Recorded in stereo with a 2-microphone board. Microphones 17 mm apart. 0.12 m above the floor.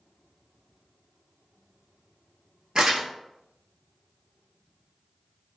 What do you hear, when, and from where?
2.8 s crumpling: 45° right (ahead or behind), 0.9 m